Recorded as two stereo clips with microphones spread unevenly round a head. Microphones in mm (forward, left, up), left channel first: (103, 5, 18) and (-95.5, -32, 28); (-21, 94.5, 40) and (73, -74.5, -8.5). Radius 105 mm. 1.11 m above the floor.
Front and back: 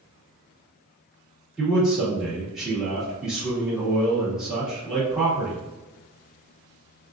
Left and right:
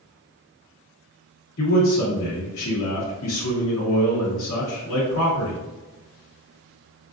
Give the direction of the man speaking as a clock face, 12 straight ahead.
9 o'clock.